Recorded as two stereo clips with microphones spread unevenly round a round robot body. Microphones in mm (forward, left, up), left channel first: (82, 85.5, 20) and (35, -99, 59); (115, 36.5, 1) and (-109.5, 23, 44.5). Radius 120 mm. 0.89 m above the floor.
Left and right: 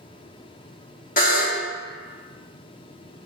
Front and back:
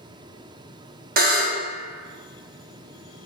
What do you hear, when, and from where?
1.2 s a buzzer: 140° left, 0.6 m